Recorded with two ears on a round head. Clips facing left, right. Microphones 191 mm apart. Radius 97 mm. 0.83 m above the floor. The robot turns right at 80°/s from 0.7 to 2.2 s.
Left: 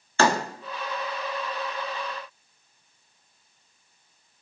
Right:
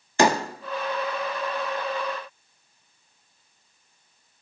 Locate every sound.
0.2 s a door slam: 15° right (ahead or behind), 0.8 m